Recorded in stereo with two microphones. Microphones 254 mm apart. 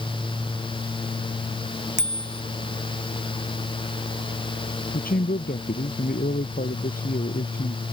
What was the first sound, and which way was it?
A bicycle bell, 45° right (ahead or behind).